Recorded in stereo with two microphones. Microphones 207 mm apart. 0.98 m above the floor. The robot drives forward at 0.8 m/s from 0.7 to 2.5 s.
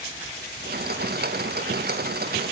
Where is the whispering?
No whispering in this recording.